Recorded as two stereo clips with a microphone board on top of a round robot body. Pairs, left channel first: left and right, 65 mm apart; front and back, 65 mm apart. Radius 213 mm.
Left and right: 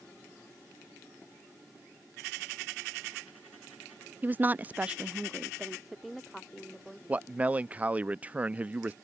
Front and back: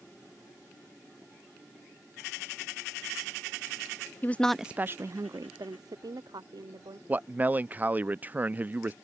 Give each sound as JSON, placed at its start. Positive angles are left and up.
{"t": 4.2, "sound": "a woman speaking", "azimuth_deg": -40}
{"t": 7.1, "sound": "a man speaking", "azimuth_deg": -140}